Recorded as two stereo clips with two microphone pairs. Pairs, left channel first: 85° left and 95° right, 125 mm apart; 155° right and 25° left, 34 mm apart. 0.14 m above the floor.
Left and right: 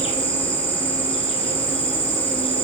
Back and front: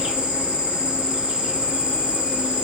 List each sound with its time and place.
0.0 s an insect: 70° left, 0.7 m